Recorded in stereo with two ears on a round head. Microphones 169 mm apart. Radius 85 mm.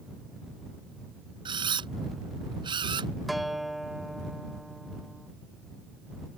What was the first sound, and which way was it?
A camera shutter, 25° right (ahead or behind).